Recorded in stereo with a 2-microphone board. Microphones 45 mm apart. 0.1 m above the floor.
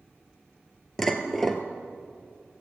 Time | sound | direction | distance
1.0 | dishes clattering | 10° left (ahead or behind) | 1.2 m